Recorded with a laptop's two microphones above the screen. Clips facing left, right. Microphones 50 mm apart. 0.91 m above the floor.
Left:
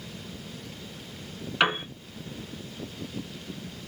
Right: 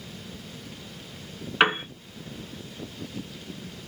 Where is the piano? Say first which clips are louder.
Right 3 dB; 25° right (ahead or behind), 1.9 m.